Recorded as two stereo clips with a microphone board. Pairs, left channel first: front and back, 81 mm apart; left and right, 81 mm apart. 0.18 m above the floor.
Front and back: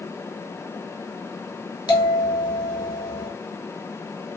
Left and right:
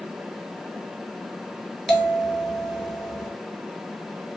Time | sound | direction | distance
1.9 | a bell | straight ahead | 0.9 m